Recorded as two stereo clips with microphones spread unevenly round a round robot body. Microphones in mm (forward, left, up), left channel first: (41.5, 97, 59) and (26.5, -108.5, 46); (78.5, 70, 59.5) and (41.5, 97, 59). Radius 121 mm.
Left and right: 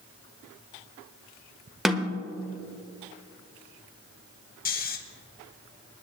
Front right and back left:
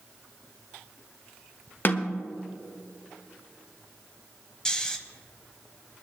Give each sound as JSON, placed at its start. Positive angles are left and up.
{"t": 1.9, "sound": "a snare drum", "azimuth_deg": -10, "distance_m": 1.2}
{"t": 4.7, "sound": "snoring", "azimuth_deg": 40, "distance_m": 1.4}